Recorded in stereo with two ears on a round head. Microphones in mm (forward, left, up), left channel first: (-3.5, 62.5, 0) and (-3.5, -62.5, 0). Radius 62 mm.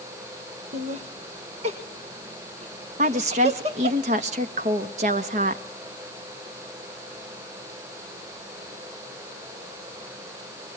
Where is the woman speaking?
50° right (ahead or behind), 1.5 m.